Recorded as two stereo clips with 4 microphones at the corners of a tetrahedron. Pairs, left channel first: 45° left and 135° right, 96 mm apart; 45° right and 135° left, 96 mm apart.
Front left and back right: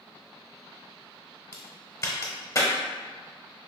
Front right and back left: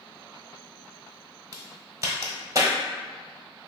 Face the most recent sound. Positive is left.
turn(degrees=90)